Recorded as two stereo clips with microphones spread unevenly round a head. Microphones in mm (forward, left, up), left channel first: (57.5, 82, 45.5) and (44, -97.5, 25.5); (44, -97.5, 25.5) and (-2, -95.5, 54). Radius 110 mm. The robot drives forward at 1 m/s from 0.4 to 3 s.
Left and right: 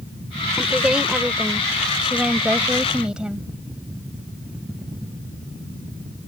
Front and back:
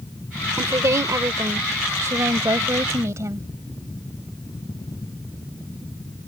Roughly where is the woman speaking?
Behind.